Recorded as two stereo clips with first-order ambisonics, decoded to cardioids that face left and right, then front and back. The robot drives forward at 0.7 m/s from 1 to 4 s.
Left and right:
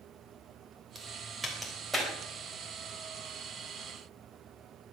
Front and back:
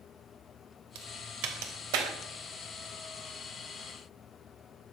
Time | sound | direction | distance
0.9 | a crack | 175° right | 3 m